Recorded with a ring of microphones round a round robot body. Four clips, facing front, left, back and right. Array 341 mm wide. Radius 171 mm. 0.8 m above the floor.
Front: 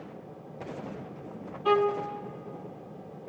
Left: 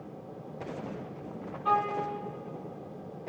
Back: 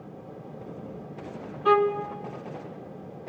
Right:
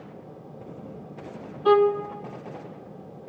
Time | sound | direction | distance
1.6 | a violin | 105° right | 0.6 m